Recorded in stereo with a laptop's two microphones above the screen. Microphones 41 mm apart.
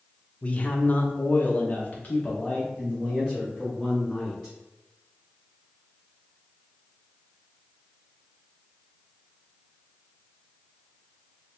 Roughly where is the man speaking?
Left.